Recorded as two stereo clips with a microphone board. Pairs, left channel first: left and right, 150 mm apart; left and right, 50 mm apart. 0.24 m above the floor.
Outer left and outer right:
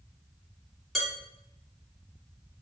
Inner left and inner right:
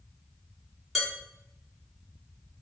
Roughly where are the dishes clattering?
Centre.